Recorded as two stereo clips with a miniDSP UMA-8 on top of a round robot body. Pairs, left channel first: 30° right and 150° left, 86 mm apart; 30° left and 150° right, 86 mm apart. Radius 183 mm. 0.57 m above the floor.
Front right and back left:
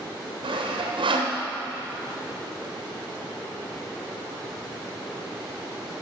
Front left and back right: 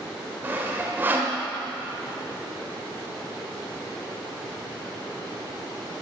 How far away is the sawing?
About 1.5 m.